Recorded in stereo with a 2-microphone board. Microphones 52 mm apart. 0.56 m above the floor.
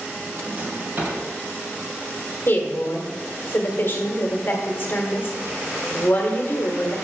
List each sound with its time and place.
0.3 s a drawer: 40° right (ahead or behind), 2.5 m
2.5 s a woman speaking: 45° left (ahead or behind), 1.5 m